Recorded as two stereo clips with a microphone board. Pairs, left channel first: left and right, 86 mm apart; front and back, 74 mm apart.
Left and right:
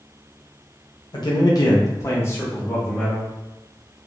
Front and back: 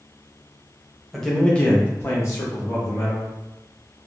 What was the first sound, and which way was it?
A man speaking, 90° left.